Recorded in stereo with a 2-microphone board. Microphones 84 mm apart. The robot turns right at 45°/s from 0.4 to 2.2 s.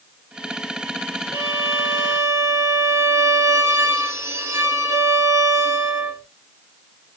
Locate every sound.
1.3 s a violin: 110° right, 1.8 m; by 6.2 s 70° right, 1.8 m